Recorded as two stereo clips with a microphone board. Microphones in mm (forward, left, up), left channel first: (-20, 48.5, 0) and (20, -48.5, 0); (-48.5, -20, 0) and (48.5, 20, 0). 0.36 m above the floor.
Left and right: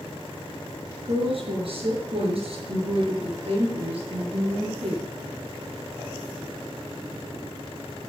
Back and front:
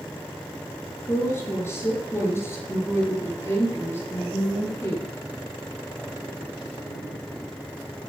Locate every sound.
1.1 s a woman speaking: 95° right, 4.5 m; by 5.1 s 90° right, 7 m